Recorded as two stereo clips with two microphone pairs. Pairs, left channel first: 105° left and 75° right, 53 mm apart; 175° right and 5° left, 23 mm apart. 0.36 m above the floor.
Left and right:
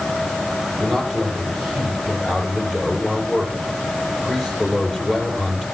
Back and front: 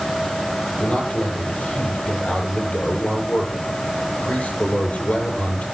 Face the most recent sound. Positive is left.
turn(degrees=-150)